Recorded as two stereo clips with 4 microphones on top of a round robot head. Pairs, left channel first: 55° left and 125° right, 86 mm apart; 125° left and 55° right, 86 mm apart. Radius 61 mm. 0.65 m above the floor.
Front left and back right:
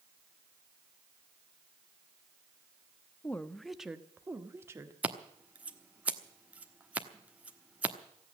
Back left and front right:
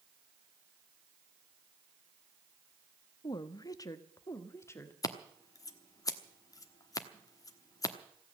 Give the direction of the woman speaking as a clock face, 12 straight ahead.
8 o'clock.